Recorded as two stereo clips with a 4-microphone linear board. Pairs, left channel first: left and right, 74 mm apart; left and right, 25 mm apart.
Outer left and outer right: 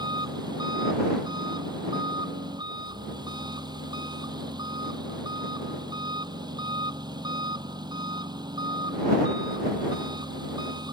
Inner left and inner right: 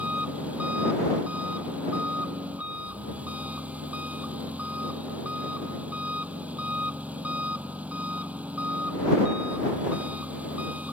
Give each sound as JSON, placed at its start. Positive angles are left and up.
{"t": 0.0, "sound": "an engine running", "side_deg": -75}